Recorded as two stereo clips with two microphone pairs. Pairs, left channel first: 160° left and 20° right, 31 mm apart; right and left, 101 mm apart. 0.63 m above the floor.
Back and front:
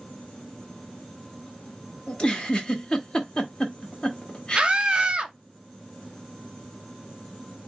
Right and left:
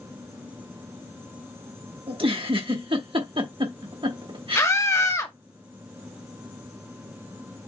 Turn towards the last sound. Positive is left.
turn(degrees=-50)